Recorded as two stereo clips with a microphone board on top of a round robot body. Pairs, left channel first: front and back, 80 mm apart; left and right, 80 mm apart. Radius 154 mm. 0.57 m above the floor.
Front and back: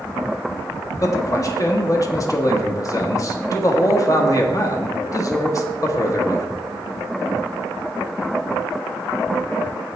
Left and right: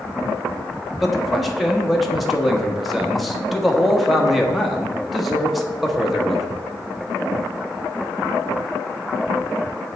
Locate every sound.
1.0 s a man speaking: straight ahead, 1.5 m